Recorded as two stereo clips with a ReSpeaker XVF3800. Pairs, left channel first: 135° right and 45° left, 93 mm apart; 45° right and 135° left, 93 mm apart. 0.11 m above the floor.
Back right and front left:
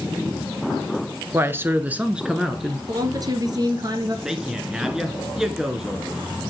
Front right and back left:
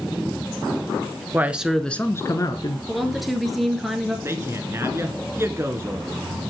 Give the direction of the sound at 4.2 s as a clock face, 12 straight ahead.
8 o'clock.